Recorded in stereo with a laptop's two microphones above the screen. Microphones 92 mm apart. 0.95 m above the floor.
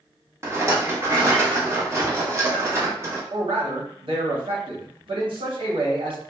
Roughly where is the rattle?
Right.